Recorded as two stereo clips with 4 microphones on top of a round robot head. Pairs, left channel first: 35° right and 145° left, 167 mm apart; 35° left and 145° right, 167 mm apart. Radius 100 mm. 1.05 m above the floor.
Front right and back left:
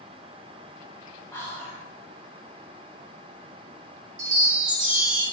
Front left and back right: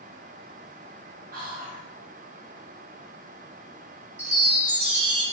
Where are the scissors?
No scissors in this recording.